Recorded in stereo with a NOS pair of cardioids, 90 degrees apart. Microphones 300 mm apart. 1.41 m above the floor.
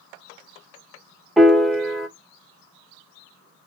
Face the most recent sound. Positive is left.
turn(degrees=0)